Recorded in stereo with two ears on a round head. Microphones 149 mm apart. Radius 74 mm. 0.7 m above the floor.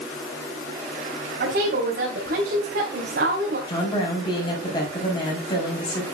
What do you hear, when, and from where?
1.4 s a woman speaking: 70° right (ahead or behind), 3.5 m
3.7 s a woman speaking: 25° left (ahead or behind), 5.5 m